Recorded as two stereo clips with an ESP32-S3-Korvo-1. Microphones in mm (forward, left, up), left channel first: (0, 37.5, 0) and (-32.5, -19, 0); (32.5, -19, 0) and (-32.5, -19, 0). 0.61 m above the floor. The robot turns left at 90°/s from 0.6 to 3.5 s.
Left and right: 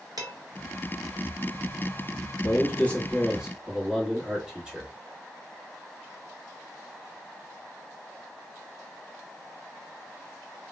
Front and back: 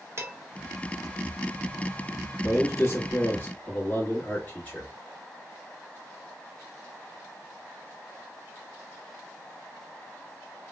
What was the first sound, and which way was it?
Dishes clattering, 130° right.